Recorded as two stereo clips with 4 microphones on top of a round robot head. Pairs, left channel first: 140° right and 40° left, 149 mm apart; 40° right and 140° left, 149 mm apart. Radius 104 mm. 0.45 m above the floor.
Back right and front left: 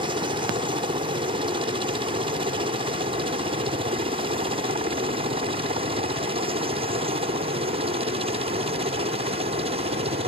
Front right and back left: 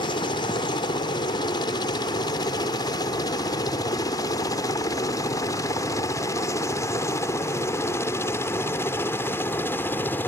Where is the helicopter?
5° left; by 10.3 s 35° left.